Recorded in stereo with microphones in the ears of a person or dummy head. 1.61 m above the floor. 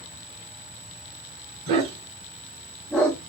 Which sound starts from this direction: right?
A dog barking, at 1.7 s.